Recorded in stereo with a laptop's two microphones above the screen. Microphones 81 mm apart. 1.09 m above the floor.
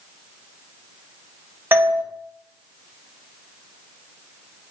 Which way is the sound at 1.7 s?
25° right (ahead or behind).